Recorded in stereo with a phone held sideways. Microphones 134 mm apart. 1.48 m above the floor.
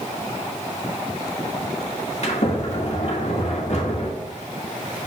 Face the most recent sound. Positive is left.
turn(degrees=55)  # may be behind; listen again after turning